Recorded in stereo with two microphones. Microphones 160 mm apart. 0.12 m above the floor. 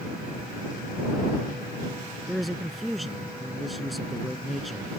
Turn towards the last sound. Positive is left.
turn(degrees=0)  # may be behind; listen again after turning